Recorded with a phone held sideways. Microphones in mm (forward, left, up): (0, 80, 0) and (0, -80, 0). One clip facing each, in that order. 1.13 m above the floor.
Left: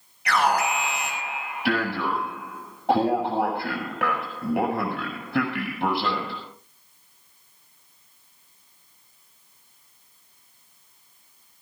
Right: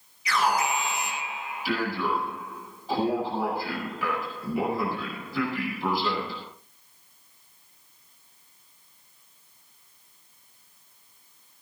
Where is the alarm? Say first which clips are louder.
Left 3 dB; 80° left, 7.5 m.